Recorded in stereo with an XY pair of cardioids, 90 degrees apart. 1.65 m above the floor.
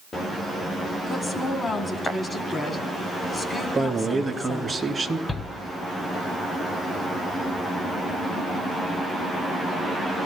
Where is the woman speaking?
35° left, 3.5 m.